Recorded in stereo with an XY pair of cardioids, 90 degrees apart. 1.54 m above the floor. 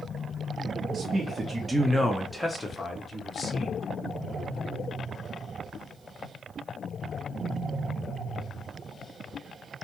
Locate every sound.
0.9 s a man speaking: 50° right, 0.7 m; by 3.8 s 45° left, 1.2 m